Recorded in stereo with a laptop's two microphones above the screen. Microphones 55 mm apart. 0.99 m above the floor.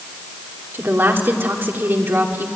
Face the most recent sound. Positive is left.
turn(degrees=-45)  # may be behind; listen again after turning